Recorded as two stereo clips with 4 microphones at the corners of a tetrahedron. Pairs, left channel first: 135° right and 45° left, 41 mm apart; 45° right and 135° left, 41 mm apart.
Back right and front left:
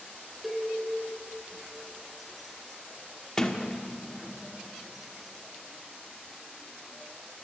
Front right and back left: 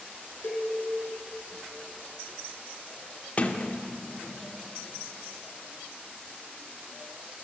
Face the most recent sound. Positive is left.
turn(degrees=-70)